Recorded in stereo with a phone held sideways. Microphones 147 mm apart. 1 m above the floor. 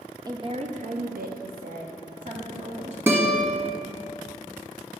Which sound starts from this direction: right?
A woman speaking, at 0.3 s.